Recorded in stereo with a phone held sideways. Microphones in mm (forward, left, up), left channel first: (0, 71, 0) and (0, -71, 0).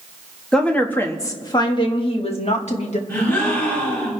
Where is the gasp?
20° left (ahead or behind), 7 m.